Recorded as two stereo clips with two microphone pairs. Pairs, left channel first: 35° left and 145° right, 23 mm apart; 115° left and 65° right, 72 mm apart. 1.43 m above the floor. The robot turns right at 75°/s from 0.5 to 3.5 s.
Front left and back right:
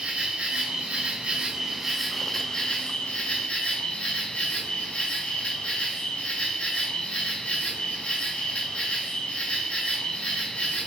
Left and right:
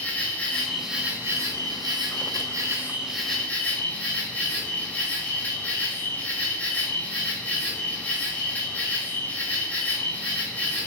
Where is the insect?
175° right, 1.2 m; by 10.9 s 50° left, 1.2 m.